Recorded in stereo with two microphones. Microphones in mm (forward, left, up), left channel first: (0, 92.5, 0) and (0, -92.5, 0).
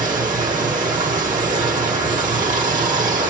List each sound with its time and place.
0.0 s running water: 45° right (ahead or behind), 1.4 m